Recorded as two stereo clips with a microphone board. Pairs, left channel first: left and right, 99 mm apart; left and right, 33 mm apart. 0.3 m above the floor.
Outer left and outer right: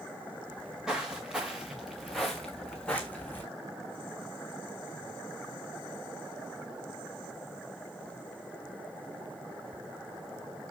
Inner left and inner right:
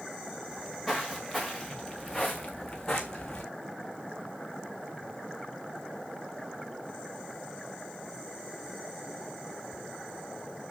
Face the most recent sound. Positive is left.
turn(degrees=20)  # may be behind; listen again after turning